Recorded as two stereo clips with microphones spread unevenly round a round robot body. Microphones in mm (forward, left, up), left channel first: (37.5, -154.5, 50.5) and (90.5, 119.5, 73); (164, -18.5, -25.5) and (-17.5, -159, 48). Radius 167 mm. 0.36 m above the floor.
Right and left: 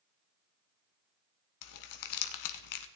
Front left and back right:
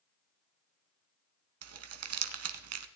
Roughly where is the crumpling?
Behind right.